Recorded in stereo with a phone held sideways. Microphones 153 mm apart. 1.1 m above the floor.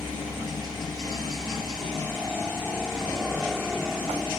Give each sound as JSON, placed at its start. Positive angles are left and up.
{"t": 0.0, "sound": "a helicopter", "side_deg": 0}